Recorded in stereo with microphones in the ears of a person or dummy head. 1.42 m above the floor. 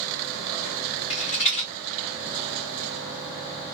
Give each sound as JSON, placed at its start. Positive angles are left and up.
{"t": 1.1, "sound": "a rattle", "side_deg": 35, "distance_m": 1.0}